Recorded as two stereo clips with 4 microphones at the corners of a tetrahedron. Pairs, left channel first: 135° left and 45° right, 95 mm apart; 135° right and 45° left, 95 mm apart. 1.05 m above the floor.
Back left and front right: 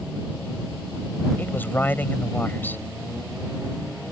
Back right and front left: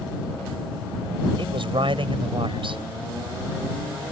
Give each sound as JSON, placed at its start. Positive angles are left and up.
{"t": 1.4, "sound": "a man speaking", "azimuth_deg": 65}